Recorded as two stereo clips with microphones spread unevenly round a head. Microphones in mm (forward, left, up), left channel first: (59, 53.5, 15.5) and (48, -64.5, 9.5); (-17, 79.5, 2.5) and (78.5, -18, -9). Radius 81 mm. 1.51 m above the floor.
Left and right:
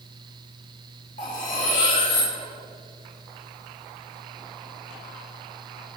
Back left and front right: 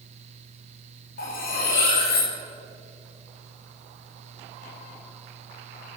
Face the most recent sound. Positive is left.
turn(degrees=130)